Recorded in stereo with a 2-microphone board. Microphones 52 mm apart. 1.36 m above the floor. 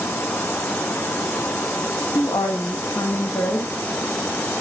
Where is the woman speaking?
80° left, 2.0 m.